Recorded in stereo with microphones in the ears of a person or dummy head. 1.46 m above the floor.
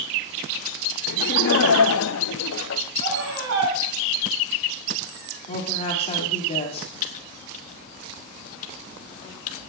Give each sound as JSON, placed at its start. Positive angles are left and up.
{"t": 1.1, "sound": "laughter", "side_deg": 65, "distance_m": 1.2}
{"t": 3.0, "sound": "a scream", "side_deg": -85, "distance_m": 3.0}
{"t": 5.5, "sound": "a woman speaking", "side_deg": 40, "distance_m": 2.5}
{"t": 7.0, "sound": "typing on a keyboard", "side_deg": 40, "distance_m": 1.3}